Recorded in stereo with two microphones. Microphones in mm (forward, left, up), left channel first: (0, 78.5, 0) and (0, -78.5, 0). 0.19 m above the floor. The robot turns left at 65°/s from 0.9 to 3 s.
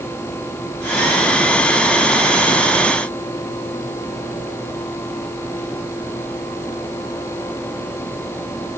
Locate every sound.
Only background noise.